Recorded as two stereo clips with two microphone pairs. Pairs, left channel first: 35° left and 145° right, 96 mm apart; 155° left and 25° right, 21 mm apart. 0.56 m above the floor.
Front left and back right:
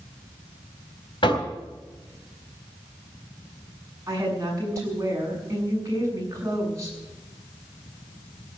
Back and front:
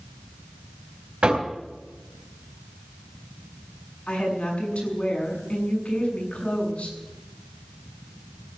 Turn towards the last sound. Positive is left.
turn(degrees=160)